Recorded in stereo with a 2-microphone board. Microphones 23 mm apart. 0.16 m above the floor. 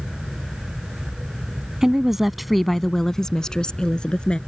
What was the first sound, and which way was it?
A woman speaking, 25° right (ahead or behind).